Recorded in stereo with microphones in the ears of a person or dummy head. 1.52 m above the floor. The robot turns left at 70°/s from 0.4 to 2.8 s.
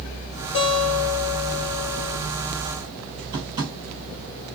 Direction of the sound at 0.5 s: 145° left.